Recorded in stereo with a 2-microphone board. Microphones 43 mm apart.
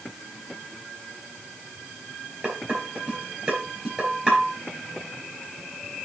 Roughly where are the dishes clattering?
Right.